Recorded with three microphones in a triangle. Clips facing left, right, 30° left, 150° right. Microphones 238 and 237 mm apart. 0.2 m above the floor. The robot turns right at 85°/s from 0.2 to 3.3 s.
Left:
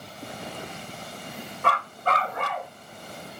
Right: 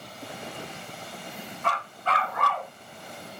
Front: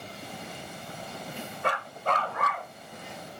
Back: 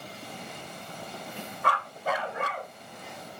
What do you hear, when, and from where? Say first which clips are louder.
1.6 s a dog barking: left 4 dB, front 1 dB; 90° left, 0.8 m; by 2.7 s straight behind, 0.8 m